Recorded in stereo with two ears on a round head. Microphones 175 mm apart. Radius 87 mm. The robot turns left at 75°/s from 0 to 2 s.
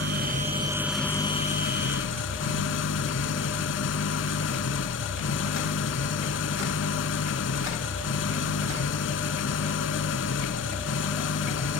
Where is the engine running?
110° right; by 11.8 s 100° left.